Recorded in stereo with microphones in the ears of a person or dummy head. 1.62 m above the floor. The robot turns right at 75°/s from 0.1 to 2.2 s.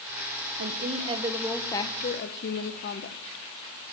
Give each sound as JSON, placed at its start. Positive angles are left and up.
{"t": 0.6, "sound": "a woman speaking", "azimuth_deg": -65, "distance_m": 1.2}